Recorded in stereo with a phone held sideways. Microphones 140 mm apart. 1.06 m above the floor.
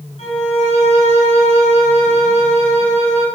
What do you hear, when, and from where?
0.2 s a violin: 50° left (ahead or behind), 7.5 m